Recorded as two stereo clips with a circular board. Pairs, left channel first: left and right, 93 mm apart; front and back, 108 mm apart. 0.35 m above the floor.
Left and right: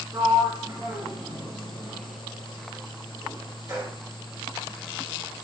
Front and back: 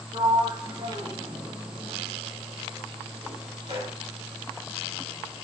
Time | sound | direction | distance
0.1 | a sliding door | 140° right | 1.3 m